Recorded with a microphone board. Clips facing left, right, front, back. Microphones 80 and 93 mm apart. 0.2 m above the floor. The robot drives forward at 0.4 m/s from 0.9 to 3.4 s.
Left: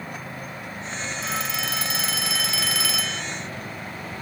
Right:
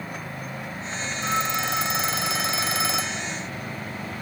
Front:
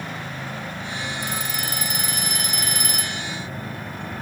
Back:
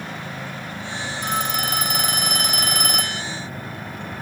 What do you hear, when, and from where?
1.2 s a phone ringing: 150° right